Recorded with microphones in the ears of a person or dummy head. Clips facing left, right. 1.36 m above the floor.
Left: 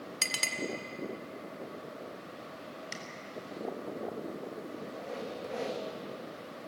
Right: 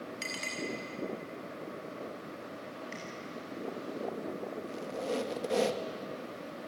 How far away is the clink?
About 2 m.